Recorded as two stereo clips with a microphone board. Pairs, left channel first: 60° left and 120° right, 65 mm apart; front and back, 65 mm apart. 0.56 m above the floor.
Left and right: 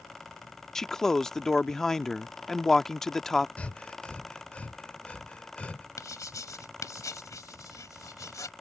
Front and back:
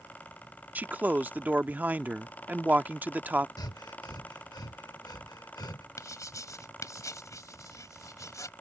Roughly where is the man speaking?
Behind left.